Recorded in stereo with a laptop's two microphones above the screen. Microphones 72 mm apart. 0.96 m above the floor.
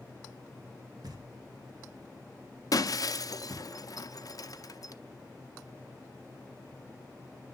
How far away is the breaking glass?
About 0.6 m.